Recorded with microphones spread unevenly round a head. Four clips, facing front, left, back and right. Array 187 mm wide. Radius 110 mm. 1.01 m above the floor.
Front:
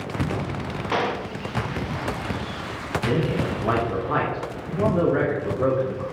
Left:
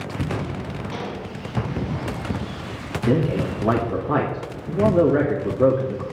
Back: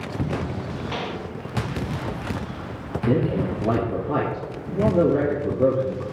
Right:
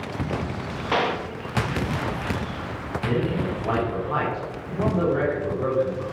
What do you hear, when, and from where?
0.9 s a gunshot: 55° right, 1.1 m
3.1 s a man speaking: 120° left, 2 m